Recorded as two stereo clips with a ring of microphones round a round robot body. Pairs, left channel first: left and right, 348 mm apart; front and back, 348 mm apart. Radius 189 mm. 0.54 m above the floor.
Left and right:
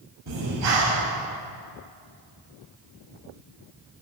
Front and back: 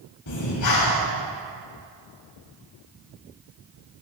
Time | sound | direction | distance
0.3 | breathing | 40° right | 1.7 m